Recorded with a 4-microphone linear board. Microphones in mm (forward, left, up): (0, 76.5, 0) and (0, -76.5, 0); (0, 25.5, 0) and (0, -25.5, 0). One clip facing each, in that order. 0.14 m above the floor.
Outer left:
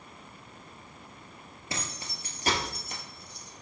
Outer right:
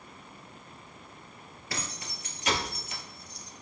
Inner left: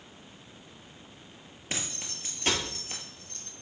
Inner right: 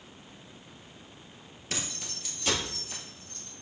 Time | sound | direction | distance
1.7 | keys jangling | 25° left (ahead or behind) | 2 m